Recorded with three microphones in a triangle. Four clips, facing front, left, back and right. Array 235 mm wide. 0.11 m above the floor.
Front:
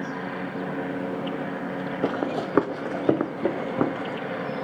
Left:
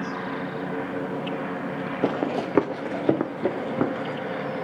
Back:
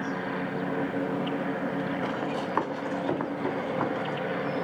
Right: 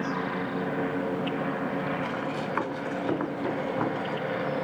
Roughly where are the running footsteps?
Ahead left.